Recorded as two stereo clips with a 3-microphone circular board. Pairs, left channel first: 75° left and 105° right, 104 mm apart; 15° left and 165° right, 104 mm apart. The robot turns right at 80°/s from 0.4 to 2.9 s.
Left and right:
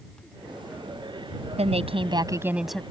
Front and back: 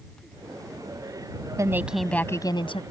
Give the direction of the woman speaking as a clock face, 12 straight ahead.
4 o'clock.